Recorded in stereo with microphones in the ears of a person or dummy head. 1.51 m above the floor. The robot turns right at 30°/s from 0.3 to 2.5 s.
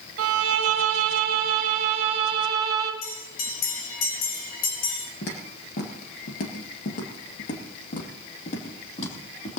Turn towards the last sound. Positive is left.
turn(degrees=40)  # may be behind; listen again after turning